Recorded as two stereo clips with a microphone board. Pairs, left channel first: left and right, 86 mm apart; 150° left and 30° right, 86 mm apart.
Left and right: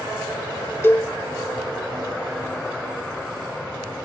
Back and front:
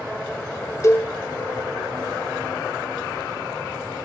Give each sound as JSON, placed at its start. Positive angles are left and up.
{"t": 0.8, "sound": "a cowbell", "azimuth_deg": 130, "distance_m": 0.8}